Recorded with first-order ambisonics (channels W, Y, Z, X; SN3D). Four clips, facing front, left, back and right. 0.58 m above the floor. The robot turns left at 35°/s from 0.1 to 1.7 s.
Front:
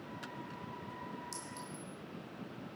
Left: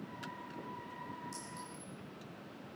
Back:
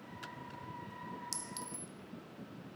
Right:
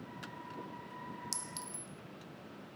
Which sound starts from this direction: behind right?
A clink, at 1.3 s.